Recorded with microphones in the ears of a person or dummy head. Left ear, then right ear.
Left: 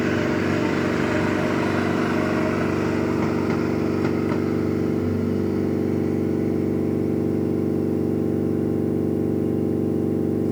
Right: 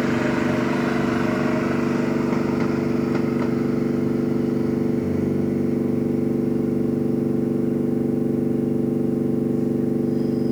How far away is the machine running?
About 9 m.